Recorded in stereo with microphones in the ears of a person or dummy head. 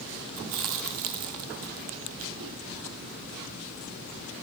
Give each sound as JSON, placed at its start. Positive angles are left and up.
{"t": 0.4, "sound": "chewing", "side_deg": -65, "distance_m": 0.8}